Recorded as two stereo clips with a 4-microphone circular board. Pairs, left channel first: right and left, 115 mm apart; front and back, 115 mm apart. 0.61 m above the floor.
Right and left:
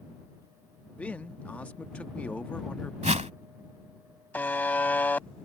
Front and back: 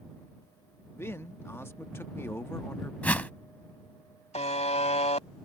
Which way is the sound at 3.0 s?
75° left.